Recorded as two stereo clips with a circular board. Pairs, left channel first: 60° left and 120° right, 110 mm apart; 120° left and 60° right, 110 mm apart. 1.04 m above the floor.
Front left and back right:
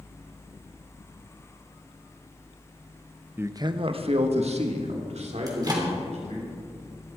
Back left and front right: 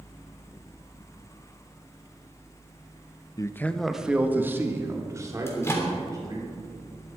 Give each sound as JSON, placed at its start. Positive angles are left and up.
{"t": 3.4, "sound": "a man speaking", "azimuth_deg": 170, "distance_m": 0.9}
{"t": 5.5, "sound": "a microwave", "azimuth_deg": -175, "distance_m": 3.0}